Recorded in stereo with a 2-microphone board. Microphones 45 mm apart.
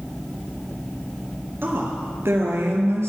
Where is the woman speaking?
55° right (ahead or behind), 3 m; by 3.1 s 65° right (ahead or behind), 4 m.